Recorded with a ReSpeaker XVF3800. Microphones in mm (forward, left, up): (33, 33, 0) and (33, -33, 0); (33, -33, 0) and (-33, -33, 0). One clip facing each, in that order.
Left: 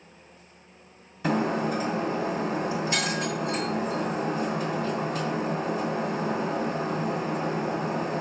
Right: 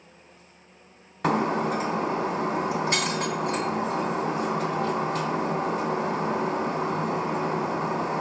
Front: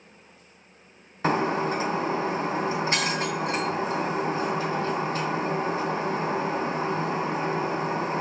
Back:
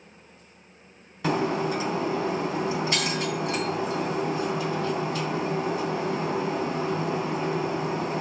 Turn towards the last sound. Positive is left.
turn(degrees=-60)